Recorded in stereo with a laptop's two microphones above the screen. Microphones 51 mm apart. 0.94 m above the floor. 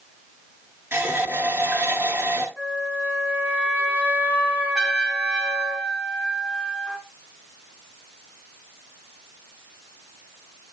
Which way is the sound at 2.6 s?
25° right (ahead or behind).